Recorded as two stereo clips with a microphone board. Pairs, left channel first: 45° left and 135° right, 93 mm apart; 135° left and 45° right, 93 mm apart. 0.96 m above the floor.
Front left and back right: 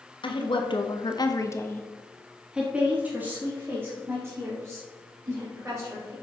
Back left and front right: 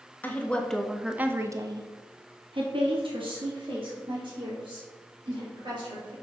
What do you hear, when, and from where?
0.2 s a woman speaking: 65° left, 1.2 m; by 6.1 s 75° right, 4 m